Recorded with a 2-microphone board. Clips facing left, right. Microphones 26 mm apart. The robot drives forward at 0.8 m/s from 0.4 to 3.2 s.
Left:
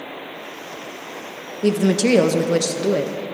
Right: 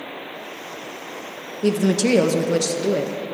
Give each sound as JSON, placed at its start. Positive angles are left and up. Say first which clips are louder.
{"t": 1.6, "sound": "a woman speaking", "louder": "left 1 dB", "side_deg": 10, "distance_m": 0.9}